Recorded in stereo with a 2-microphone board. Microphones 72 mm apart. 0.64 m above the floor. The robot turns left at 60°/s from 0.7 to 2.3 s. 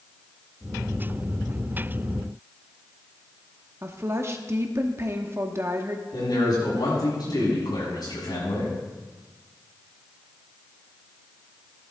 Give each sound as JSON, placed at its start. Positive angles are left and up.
{"t": 3.8, "sound": "a woman speaking", "side_deg": -35, "distance_m": 0.9}
{"t": 6.1, "sound": "a man speaking", "side_deg": 60, "distance_m": 6.5}